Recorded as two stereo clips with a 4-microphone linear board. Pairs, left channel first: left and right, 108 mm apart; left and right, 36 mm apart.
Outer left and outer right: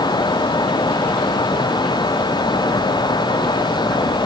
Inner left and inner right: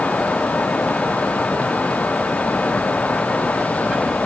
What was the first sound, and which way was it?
Only background noise.